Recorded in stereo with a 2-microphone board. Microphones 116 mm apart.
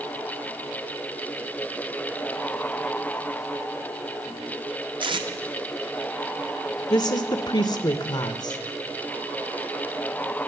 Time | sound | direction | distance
5.0 | tape being pulled | 45° right (ahead or behind) | 0.7 m
6.9 | a woman speaking | 40° left (ahead or behind) | 0.5 m